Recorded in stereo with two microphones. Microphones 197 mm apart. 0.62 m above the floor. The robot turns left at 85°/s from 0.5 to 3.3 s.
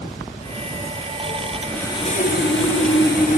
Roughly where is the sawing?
Behind.